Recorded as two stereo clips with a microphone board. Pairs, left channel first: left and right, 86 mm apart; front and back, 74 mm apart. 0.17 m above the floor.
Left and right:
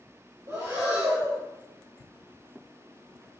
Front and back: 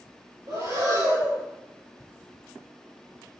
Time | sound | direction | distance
0.5 | breathing | 140° right | 3 m